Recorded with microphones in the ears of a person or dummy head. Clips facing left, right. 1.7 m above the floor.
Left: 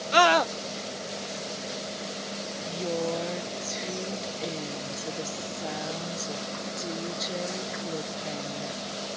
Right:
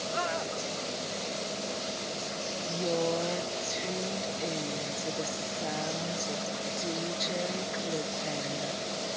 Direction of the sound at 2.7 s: 5° left (ahead or behind).